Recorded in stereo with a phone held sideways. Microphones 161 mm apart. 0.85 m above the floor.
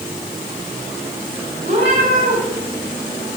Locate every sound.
1.6 s a cat meowing: 70° right (ahead or behind), 9 m